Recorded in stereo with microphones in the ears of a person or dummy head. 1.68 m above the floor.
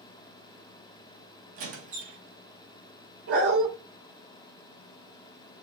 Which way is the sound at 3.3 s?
60° right (ahead or behind).